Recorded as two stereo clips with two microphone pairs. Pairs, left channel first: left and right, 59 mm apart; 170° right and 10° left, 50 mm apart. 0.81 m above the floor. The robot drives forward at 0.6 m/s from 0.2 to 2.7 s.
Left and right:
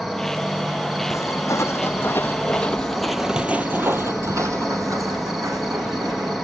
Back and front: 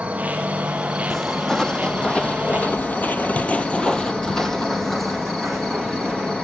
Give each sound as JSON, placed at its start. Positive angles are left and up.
{"t": 0.0, "sound": "an insect", "azimuth_deg": -5, "distance_m": 1.9}
{"t": 1.1, "sound": "footsteps", "azimuth_deg": 105, "distance_m": 1.9}